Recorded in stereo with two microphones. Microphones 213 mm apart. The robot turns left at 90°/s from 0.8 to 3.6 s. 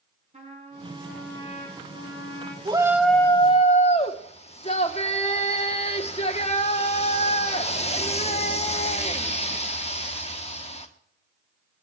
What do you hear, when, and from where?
0.3 s a trumpet: 150° right, 4 m; by 2.5 s 55° left, 4 m
2.6 s a shout: 145° right, 1.2 m; by 10.9 s 130° left, 1.2 m